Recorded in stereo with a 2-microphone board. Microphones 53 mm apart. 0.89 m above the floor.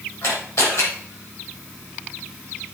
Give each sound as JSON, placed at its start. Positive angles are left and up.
{"t": 0.2, "sound": "a camera shutter", "side_deg": 65, "distance_m": 6.0}